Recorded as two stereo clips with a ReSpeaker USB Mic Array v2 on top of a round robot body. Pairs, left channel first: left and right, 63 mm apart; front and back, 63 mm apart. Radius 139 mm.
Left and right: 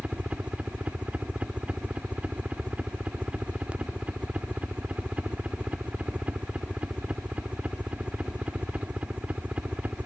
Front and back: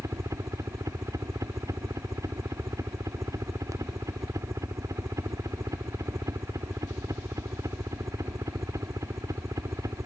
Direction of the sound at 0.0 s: 160° right.